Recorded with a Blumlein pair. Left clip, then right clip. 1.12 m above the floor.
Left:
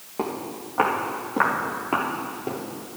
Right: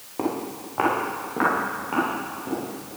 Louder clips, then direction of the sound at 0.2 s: Right 1 dB; straight ahead.